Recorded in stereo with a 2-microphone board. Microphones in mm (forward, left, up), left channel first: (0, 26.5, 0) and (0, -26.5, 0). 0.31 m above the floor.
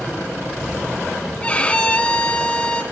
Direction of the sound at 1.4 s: 20° left (ahead or behind).